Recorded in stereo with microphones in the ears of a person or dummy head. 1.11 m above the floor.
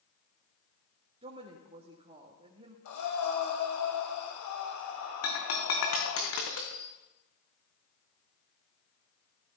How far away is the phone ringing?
No phone ringing in this recording.